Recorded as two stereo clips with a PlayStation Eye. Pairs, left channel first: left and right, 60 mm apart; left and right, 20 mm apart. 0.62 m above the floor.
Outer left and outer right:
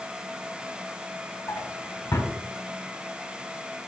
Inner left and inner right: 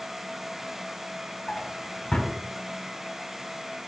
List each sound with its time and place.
1.5 s a drawer: 65° left (ahead or behind), 1.5 m